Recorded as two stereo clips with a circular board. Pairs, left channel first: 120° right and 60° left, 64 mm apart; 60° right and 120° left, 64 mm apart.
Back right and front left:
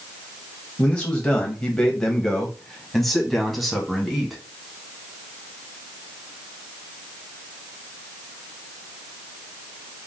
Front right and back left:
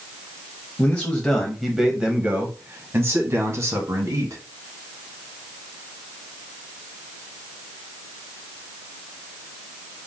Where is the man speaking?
80° right, 1.0 m; by 4.4 s 145° left, 1.9 m.